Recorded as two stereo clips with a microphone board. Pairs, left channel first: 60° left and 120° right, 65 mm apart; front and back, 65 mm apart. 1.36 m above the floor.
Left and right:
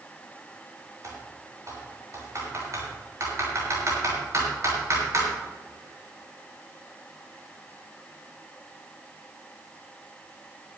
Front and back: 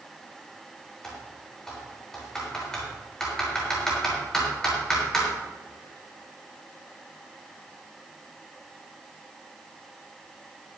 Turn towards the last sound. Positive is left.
turn(degrees=-80)